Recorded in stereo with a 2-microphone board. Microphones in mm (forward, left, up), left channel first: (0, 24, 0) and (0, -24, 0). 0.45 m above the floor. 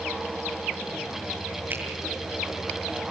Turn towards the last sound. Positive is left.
turn(degrees=-45)  # may be behind; listen again after turning